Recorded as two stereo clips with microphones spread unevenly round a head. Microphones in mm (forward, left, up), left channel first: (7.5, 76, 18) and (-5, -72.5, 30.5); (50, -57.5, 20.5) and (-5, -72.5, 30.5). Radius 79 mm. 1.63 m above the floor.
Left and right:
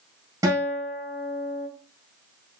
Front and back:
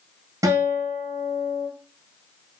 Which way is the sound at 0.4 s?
160° right.